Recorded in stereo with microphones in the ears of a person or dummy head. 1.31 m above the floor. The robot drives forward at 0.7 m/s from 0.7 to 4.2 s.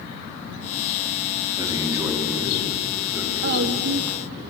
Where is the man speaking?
20° right (ahead or behind), 2.5 m; by 4.4 s 10° right (ahead or behind), 4 m.